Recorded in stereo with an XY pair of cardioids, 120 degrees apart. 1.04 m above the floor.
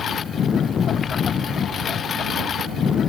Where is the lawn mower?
45° left.